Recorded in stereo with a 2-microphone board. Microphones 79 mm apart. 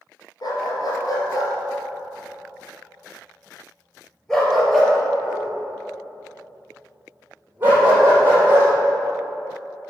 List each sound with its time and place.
0.4 s a dog barking: 60° left (ahead or behind), 2.5 m; by 8.7 s 30° right (ahead or behind), 4 m